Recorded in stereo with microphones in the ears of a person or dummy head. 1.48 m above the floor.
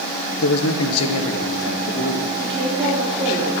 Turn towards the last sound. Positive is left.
turn(degrees=-30)  # may be behind; listen again after turning